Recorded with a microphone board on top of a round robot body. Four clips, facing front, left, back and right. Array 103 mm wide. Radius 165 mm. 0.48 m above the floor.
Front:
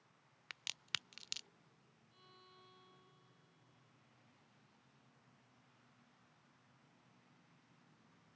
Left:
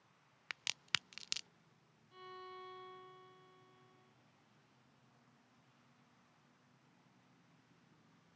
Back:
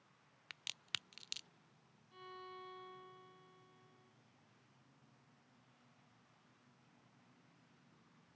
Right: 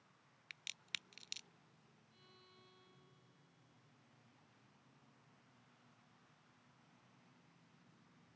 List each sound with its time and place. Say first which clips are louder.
0.5 s a crack: left 11 dB, front 2 dB; 85° left
2.1 s a violin: left 18 dB, back 13 dB; 130° left